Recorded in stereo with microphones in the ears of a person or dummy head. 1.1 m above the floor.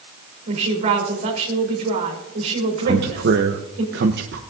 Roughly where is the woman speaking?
Right.